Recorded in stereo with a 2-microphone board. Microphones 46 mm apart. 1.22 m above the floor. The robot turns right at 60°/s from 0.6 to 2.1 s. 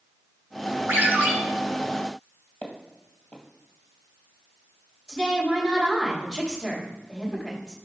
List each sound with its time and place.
0.9 s a ringtone: 60° right (ahead or behind), 2.5 m; by 1.3 s 35° right (ahead or behind), 2.5 m
2.6 s footsteps: 40° left (ahead or behind), 1.7 m
5.1 s a woman speaking: 15° left (ahead or behind), 3 m